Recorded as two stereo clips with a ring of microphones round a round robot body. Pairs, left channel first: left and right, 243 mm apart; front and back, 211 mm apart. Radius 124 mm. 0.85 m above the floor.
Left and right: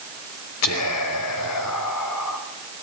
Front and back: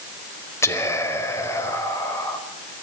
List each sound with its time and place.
0.6 s whispering: 75° left, 4.5 m